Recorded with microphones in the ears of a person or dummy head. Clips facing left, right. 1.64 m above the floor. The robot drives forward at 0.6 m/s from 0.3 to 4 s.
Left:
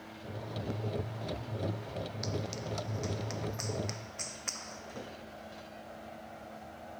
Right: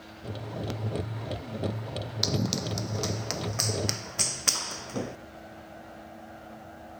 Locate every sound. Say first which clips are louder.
2.2 s running footsteps: right 11 dB; 70° right (ahead or behind); by 5.2 s 75° right (ahead or behind)